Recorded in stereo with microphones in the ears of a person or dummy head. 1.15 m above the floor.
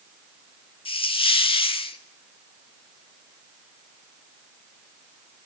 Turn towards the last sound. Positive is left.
turn(degrees=35)  # may be behind; listen again after turning